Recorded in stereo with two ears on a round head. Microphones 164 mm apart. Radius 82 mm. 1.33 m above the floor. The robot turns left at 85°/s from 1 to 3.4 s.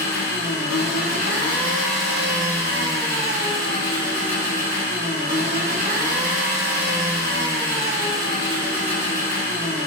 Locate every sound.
0.0 s an engine running: 85° left, 1.4 m; by 9.9 s 120° right, 1.4 m